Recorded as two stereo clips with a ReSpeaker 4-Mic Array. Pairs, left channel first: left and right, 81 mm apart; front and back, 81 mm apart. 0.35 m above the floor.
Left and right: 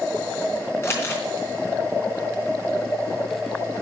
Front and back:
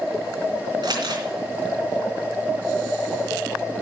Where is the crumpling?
150° left, 3.5 m.